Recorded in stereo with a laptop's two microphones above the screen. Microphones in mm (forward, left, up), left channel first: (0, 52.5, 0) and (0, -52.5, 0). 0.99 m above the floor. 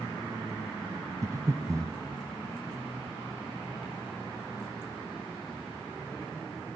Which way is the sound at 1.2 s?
30° right (ahead or behind).